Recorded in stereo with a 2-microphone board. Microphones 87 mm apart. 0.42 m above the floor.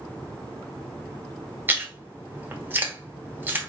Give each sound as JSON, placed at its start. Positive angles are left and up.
{"t": 1.7, "sound": "chewing", "side_deg": -20, "distance_m": 1.0}